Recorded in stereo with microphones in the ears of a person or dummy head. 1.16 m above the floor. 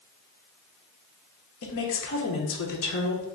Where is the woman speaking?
65° left (ahead or behind), 0.9 m.